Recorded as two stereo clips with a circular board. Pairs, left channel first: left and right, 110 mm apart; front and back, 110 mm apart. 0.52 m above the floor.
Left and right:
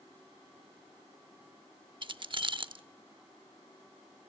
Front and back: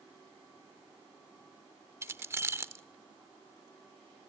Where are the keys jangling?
120° right, 0.8 m.